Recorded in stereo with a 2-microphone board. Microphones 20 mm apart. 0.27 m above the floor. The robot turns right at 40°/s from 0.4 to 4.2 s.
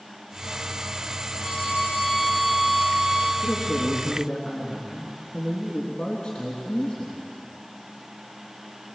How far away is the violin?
About 6 m.